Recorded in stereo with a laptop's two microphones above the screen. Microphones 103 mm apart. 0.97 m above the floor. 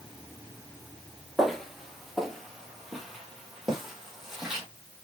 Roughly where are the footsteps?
Centre.